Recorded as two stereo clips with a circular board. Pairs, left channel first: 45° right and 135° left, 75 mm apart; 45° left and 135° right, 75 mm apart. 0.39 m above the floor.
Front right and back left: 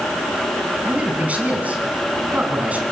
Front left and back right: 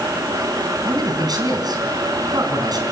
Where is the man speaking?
155° right, 4.5 m.